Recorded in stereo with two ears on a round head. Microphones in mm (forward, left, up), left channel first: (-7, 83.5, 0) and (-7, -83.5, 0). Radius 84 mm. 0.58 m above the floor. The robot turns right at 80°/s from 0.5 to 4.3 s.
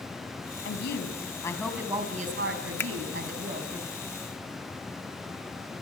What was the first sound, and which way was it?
A woman speaking, 100° left.